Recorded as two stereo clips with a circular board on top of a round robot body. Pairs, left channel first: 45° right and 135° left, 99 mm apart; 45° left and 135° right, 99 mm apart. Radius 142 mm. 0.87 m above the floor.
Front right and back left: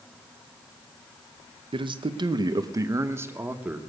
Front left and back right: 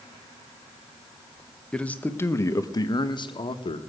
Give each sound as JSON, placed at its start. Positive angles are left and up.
{"t": 1.7, "sound": "a man speaking", "azimuth_deg": 125, "distance_m": 1.0}